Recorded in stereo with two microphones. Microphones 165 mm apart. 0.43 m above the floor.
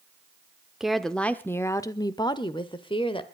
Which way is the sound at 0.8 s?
5° right (ahead or behind).